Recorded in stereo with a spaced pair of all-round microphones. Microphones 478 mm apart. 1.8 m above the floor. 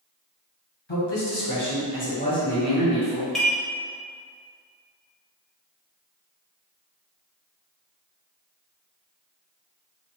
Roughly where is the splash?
No splash in this recording.